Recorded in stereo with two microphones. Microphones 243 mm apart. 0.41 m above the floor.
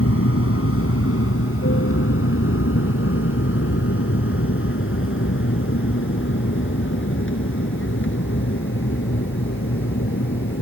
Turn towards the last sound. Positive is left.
turn(degrees=50)  # may be behind; listen again after turning